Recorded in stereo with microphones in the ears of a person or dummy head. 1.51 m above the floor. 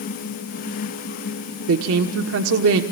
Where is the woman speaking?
75° right (ahead or behind), 1.3 m.